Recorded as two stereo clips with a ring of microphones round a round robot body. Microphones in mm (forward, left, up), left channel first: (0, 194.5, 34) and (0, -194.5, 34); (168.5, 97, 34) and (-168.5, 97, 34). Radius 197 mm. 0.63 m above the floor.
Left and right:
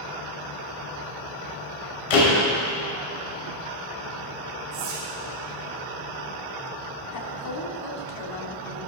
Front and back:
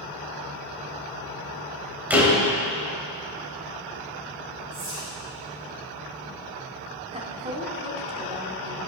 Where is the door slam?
95° left, 3 m.